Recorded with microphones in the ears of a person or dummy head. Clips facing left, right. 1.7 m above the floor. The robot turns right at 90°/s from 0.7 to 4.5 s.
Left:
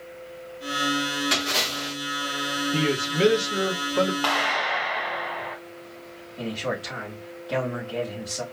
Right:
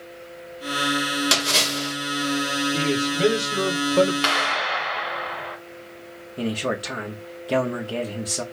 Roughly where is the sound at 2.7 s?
Left.